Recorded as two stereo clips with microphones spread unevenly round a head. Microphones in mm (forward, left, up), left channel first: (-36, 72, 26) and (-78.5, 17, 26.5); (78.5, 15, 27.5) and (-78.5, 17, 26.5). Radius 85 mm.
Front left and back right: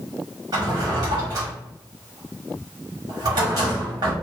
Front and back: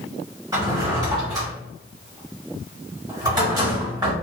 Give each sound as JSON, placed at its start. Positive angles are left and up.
{"t": 0.5, "sound": "a drawer", "azimuth_deg": -115, "distance_m": 1.4}